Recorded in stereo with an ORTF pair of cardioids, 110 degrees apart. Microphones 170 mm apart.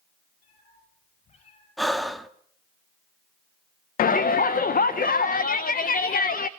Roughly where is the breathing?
Ahead.